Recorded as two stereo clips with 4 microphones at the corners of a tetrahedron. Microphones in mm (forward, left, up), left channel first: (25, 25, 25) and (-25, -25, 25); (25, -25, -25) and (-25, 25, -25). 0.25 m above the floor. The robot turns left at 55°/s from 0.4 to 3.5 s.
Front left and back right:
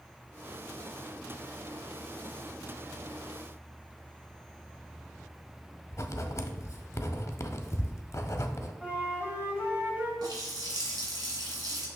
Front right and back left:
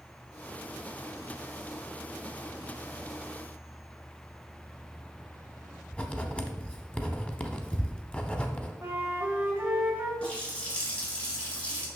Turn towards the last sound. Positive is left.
turn(degrees=-115)